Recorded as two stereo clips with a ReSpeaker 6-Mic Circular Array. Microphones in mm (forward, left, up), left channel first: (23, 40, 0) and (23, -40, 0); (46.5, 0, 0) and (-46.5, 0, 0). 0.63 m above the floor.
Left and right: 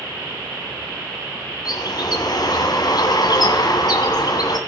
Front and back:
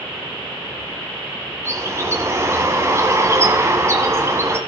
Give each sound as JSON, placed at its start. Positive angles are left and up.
{"t": 1.6, "sound": "a bird", "azimuth_deg": 120, "distance_m": 2.0}